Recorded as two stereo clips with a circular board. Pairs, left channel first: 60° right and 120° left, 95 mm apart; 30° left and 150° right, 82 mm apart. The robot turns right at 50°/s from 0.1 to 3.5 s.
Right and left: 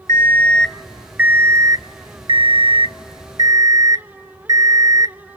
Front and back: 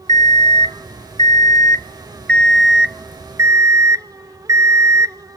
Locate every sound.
0.1 s an alarm clock: 5° right, 0.5 m; by 5.4 s 165° left, 0.5 m